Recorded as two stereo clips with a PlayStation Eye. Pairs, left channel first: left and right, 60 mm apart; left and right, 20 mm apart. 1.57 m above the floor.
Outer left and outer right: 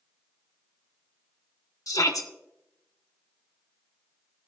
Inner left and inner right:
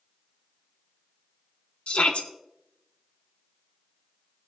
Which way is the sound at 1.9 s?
75° left (ahead or behind).